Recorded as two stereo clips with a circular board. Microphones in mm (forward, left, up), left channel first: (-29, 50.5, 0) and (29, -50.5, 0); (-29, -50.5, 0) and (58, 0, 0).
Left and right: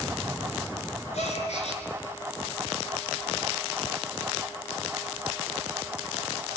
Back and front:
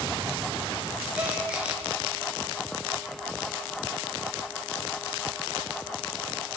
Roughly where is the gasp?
Left.